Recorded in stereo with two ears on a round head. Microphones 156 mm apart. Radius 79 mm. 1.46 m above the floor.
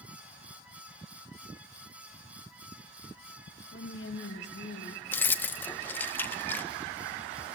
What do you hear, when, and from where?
3.7 s a woman speaking: 65° left (ahead or behind), 2.5 m
5.1 s keys jangling: 10° left (ahead or behind), 0.6 m